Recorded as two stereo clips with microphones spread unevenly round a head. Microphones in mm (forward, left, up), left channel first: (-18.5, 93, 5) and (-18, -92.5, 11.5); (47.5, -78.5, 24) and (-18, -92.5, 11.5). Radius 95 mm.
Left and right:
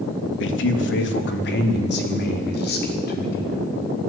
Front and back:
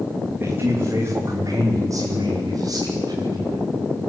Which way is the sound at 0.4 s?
110° left.